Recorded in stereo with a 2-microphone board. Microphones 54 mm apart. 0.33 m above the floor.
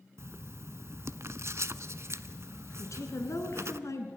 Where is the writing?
60° right (ahead or behind), 0.6 m.